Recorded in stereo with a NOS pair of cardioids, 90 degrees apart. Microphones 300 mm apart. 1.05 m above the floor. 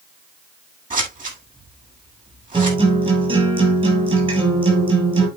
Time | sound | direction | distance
0.9 | scissors | 25° right | 9 m
2.5 | a guitar | 20° right | 6.5 m